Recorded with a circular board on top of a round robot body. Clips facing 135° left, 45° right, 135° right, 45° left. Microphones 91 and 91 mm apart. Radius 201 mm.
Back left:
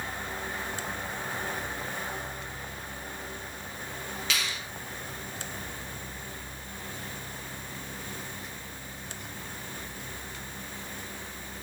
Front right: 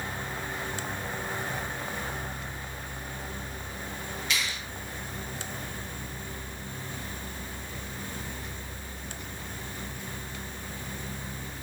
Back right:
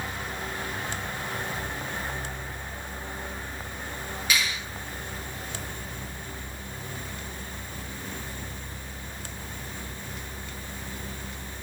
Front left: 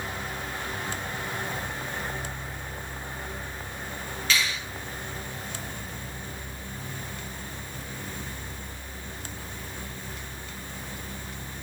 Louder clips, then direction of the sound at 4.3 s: Front right 1 dB, front left 1 dB; 150° left.